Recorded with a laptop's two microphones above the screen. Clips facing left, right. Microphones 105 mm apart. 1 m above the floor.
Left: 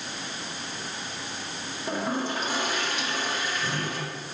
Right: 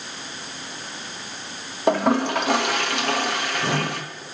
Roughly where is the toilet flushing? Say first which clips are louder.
Right 10 dB; right.